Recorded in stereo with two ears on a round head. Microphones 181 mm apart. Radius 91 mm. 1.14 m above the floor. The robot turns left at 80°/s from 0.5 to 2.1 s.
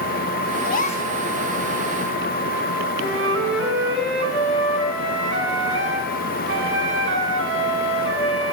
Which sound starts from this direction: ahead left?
A gasp, at 0.6 s.